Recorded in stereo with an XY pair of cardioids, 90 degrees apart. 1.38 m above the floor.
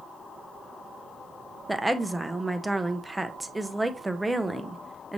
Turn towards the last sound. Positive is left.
turn(degrees=-10)